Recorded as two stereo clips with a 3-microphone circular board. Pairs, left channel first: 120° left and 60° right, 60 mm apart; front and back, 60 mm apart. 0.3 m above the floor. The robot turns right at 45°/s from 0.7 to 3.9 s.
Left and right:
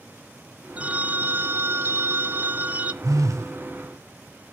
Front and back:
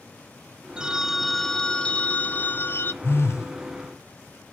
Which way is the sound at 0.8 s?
110° right.